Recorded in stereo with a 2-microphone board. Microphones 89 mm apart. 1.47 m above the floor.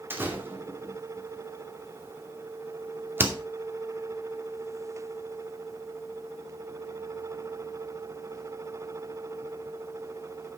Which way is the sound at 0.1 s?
25° right (ahead or behind).